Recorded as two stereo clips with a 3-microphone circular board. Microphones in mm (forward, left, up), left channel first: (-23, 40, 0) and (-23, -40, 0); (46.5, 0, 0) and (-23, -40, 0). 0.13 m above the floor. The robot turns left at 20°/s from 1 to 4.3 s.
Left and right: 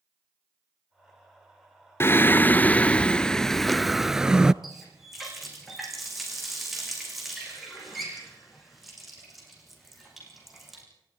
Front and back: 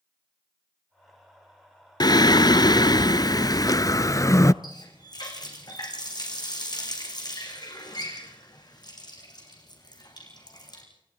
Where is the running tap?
Straight ahead, 6 m.